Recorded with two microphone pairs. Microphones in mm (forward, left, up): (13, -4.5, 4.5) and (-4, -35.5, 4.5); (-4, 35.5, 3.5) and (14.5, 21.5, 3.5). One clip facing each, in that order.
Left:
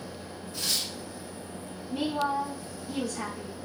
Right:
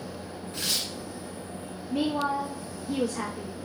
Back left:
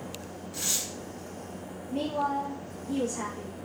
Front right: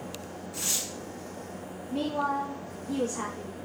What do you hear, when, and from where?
0.5 s tearing paper: 140° right, 1.9 m
1.9 s a woman speaking: 100° right, 1.2 m